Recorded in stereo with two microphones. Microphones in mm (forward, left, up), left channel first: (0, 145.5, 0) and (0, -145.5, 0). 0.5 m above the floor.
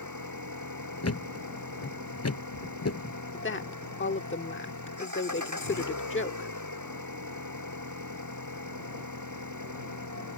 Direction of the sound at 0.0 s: 90° right.